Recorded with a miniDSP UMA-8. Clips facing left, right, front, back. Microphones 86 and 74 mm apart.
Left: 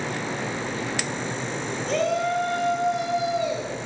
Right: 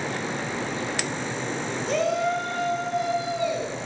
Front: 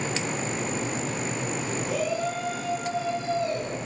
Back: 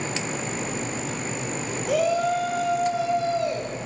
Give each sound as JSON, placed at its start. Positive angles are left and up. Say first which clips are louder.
{"t": 1.9, "sound": "a shout", "louder": "even, back 8 dB", "azimuth_deg": -175, "distance_m": 5.5}